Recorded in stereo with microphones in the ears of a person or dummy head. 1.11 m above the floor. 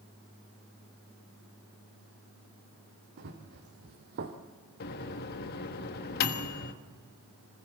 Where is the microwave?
50° left (ahead or behind), 1.3 m.